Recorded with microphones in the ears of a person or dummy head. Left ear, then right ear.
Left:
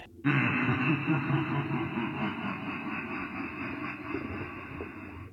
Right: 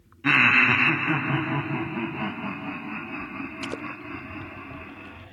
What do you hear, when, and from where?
0.2 s laughter: 50° right (ahead or behind), 0.9 m; by 5.2 s 5° right (ahead or behind), 6 m